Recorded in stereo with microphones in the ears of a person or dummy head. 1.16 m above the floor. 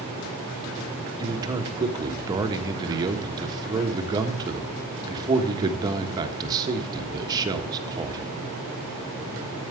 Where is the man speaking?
25° right (ahead or behind), 1.3 m.